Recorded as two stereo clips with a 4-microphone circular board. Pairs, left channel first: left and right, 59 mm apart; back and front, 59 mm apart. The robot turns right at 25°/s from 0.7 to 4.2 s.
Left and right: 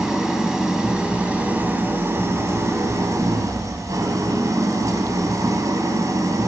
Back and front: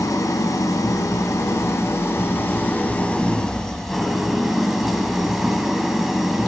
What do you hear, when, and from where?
0.0 s an engine running: 175° right, 2 m; by 6.5 s 85° right, 2 m